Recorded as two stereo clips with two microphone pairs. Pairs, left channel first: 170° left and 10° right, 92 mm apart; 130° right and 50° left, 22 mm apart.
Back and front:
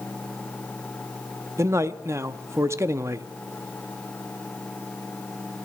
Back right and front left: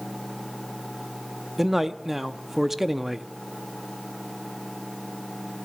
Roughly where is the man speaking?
Ahead right.